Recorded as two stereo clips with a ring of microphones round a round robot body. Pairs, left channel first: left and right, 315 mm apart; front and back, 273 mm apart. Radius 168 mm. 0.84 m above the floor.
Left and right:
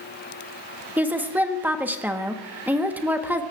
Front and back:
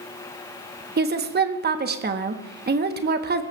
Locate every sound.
1.0 s a woman speaking: 170° right, 1.1 m